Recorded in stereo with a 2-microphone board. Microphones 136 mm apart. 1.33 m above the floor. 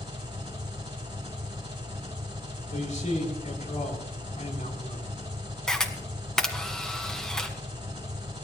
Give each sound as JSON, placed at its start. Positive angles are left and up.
{"t": 0.0, "sound": "an engine running", "side_deg": -30, "distance_m": 4.0}
{"t": 2.7, "sound": "a man speaking", "side_deg": 55, "distance_m": 4.0}
{"t": 5.7, "sound": "a camera shutter", "side_deg": 5, "distance_m": 1.7}